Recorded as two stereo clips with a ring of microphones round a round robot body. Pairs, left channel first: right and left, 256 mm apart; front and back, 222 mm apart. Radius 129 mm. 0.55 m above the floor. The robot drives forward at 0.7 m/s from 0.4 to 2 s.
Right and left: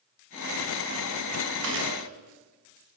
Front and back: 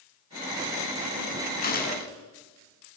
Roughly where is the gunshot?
Ahead left.